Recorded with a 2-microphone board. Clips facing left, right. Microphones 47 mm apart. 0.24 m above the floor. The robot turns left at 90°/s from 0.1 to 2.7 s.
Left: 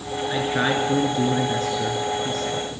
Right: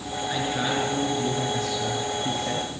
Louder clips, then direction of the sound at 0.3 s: Left 4 dB; 175° left.